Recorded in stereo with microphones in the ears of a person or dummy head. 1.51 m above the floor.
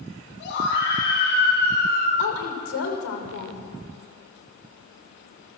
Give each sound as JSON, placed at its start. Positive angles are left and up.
{"t": 0.4, "sound": "a scream", "side_deg": 65, "distance_m": 10.0}
{"t": 2.2, "sound": "a woman speaking", "side_deg": 80, "distance_m": 5.5}